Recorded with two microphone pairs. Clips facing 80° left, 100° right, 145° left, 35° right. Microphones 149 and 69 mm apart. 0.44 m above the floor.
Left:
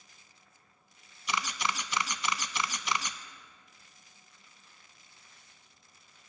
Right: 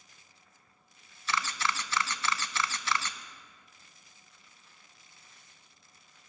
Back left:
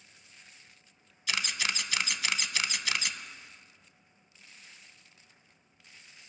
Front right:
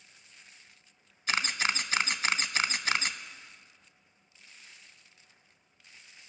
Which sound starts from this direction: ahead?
A camera shutter, at 1.3 s.